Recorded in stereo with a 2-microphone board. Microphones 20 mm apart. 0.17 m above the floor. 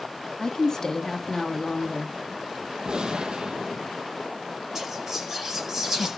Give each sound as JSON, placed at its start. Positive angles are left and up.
{"t": 0.4, "sound": "a woman speaking", "side_deg": 35, "distance_m": 1.3}
{"t": 2.9, "sound": "a gunshot", "side_deg": -55, "distance_m": 1.4}
{"t": 4.8, "sound": "whispering", "side_deg": -25, "distance_m": 5.0}